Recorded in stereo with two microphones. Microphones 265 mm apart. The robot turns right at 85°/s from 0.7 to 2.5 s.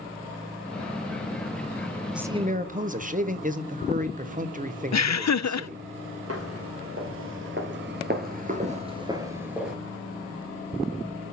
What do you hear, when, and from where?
2.1 s a man speaking: straight behind, 0.9 m; by 5.8 s 145° right, 0.9 m
4.9 s laughter: 90° left, 0.6 m
6.3 s footsteps: 60° right (ahead or behind), 2.5 m; by 9.8 s centre (ahead or behind), 1.5 m